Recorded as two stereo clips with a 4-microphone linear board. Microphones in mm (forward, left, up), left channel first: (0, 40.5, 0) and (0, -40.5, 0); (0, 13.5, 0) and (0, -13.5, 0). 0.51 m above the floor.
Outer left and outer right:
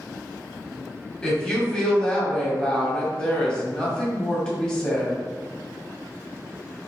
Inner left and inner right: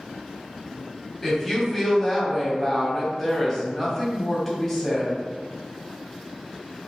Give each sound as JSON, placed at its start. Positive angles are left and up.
{"t": 1.2, "sound": "a woman speaking", "side_deg": 10, "distance_m": 1.0}